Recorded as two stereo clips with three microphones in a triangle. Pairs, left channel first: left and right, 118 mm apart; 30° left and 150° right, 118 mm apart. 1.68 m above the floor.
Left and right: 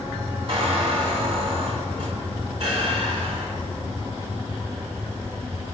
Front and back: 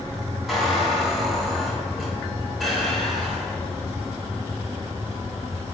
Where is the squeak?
60° right, 3 m.